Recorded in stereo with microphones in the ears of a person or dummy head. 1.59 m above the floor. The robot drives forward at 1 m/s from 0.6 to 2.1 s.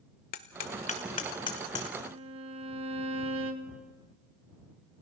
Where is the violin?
30° right (ahead or behind), 1.4 m.